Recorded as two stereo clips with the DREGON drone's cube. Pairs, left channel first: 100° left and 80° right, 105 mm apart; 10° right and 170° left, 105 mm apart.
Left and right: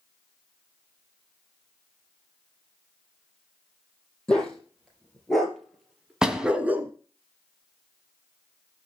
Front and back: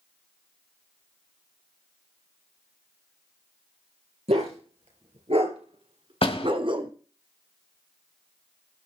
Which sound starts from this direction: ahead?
A door slam, at 6.2 s.